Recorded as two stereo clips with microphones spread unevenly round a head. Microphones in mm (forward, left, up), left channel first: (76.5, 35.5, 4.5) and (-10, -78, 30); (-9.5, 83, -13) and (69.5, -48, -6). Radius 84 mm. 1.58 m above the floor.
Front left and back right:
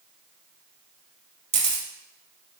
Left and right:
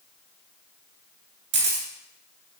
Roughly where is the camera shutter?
Right.